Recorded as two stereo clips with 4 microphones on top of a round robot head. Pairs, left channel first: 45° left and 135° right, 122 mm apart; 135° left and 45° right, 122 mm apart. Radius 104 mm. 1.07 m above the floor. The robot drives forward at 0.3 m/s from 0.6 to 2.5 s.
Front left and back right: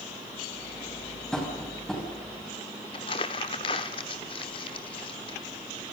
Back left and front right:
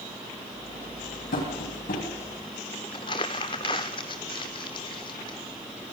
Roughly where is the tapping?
Behind left.